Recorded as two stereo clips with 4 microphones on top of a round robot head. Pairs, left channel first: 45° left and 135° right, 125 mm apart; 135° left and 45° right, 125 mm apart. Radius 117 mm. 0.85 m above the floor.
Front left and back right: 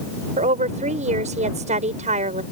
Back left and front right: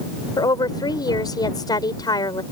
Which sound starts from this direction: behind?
A woman speaking, at 0.4 s.